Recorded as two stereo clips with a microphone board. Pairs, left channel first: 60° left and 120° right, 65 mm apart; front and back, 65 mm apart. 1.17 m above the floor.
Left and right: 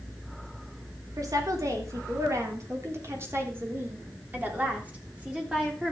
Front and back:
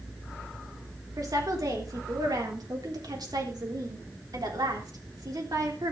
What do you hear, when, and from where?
1.2 s a woman speaking: 150° right, 3.5 m; by 5.9 s 160° left, 3.5 m